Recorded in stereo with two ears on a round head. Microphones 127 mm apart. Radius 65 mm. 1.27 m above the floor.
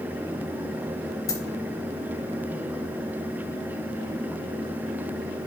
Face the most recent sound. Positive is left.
turn(degrees=25)  # may be behind; listen again after turning